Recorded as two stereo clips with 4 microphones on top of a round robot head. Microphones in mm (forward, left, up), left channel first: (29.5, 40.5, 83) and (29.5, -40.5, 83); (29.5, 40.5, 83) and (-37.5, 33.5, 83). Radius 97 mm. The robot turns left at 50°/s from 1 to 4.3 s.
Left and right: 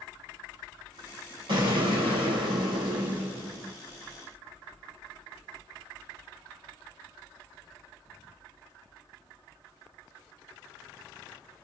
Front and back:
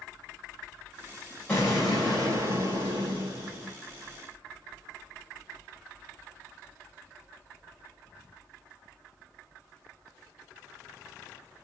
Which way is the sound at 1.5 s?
70° right.